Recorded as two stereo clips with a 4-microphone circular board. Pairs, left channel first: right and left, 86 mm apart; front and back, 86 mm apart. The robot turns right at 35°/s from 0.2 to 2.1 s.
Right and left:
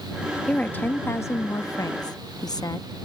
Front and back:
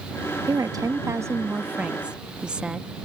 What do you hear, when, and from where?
0.5 s a woman speaking: 165° right; by 2.9 s 105° right